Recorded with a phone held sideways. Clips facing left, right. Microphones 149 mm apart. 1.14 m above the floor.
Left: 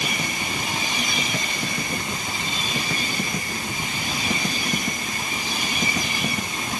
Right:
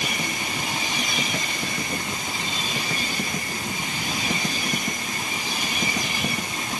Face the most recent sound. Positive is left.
No sound to turn to.